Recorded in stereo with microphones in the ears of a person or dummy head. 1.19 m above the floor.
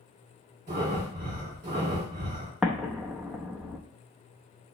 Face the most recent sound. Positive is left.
turn(degrees=-5)  # may be behind; listen again after turning